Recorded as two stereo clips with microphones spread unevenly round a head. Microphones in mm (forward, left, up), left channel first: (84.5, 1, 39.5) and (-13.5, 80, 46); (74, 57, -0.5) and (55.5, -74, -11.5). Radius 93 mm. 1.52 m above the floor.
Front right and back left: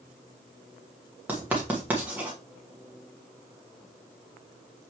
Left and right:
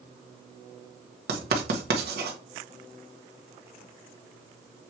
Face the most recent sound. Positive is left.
turn(degrees=-140)